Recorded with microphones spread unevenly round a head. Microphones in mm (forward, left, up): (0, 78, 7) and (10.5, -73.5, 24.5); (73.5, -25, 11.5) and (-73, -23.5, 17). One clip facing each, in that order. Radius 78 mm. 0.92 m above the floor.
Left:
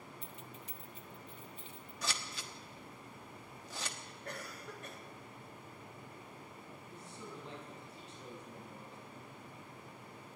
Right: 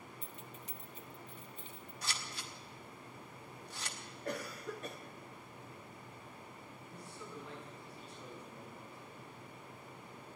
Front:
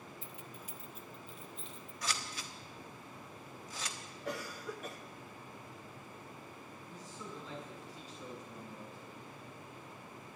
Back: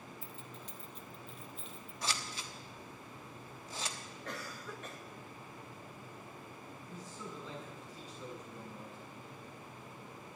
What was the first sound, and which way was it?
Keys jangling, 70° right.